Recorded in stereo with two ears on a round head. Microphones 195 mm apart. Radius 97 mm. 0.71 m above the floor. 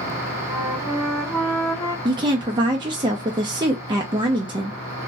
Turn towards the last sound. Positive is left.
turn(degrees=-20)  # may be behind; listen again after turning